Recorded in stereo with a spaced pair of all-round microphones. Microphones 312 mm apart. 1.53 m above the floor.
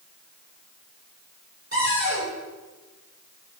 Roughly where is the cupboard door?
Right.